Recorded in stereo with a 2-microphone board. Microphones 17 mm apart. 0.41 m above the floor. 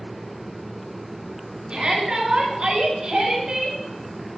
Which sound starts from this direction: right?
A shout, at 1.7 s.